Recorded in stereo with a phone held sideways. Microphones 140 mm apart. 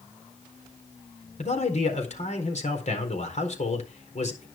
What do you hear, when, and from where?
1.4 s a man speaking: 55° left (ahead or behind), 4 m